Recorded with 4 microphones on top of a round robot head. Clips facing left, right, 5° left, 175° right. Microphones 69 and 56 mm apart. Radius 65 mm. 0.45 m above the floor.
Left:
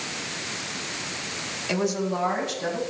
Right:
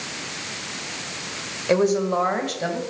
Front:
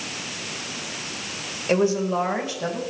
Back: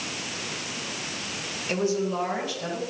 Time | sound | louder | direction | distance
1.7 | a woman speaking | right 7 dB, front 5 dB | 50° right | 2 m